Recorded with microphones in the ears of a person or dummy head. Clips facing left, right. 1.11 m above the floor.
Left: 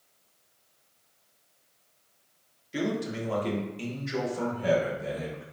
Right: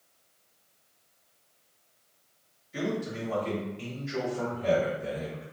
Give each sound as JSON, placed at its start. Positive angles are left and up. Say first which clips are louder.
{"t": 2.7, "sound": "a man speaking", "louder": "left 2 dB", "side_deg": 40, "distance_m": 0.8}